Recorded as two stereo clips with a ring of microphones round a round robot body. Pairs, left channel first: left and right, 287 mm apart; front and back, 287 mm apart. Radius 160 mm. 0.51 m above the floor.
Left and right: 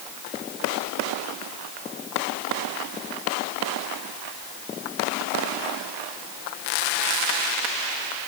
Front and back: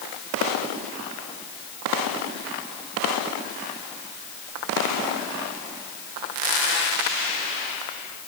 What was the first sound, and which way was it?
Only background noise.